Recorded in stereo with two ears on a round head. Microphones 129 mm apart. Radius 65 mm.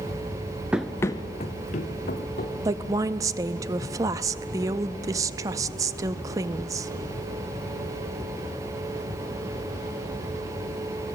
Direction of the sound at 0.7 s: 10° right (ahead or behind).